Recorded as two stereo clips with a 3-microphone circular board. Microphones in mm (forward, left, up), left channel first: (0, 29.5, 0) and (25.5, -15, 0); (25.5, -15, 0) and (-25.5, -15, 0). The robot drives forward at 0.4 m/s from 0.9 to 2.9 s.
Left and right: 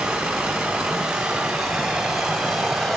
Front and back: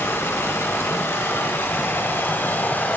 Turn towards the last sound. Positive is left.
turn(degrees=30)